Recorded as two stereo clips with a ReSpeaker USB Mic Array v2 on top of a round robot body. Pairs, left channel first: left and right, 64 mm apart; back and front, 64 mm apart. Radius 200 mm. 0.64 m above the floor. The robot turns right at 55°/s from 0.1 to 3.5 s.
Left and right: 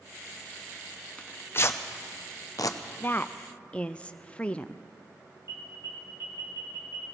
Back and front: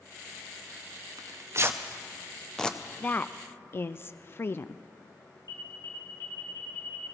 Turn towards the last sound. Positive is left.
turn(degrees=-140)